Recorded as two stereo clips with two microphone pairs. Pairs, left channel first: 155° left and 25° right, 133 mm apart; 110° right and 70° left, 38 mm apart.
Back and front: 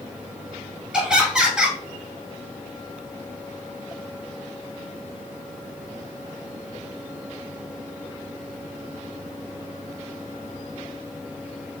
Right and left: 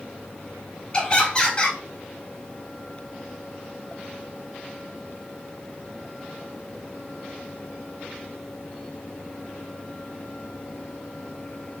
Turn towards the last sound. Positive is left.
turn(degrees=-100)